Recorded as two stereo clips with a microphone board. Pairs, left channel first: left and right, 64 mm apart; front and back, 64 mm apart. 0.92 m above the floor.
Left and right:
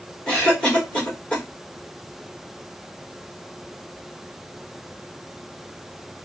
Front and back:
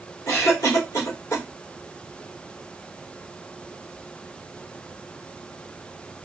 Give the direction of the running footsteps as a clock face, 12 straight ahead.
No running footsteps in this recording.